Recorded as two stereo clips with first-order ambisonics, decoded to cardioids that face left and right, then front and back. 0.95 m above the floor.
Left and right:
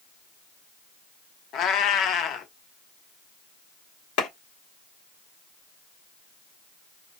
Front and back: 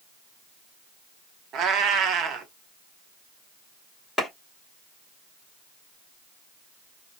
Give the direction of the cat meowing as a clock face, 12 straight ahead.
8 o'clock.